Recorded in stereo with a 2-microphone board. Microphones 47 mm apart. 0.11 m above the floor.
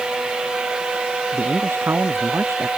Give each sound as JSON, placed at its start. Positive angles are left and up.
{"t": 1.3, "sound": "a man speaking", "side_deg": -55}